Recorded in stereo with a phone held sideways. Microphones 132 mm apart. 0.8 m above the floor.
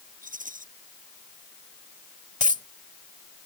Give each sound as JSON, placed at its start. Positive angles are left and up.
{"t": 0.2, "sound": "a rattle", "side_deg": -75}
{"t": 2.4, "sound": "a dropped coin", "side_deg": 65}